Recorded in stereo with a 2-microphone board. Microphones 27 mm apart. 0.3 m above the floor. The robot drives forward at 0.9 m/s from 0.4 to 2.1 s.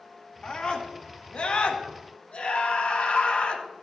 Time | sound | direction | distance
0.4 | a scream | 40° left (ahead or behind) | 2.5 m